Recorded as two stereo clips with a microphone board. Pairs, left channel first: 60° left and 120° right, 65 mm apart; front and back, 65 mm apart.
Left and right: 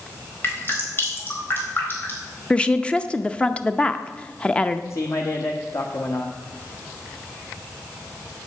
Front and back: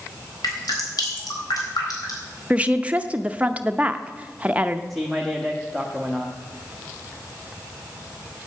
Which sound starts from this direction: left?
A man speaking, at 4.9 s.